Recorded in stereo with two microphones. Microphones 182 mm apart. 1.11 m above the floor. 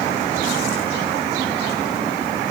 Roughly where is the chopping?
I don't hear chopping.